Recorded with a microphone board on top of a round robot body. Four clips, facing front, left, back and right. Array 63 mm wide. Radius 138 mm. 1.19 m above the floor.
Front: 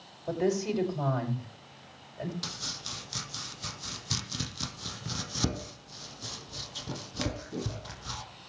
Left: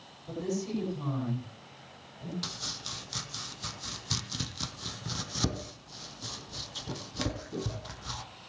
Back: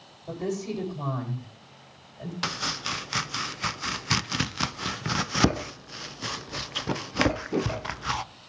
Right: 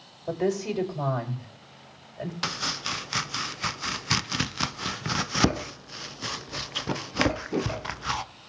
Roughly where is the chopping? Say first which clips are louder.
Right 11 dB, back 11 dB; behind right.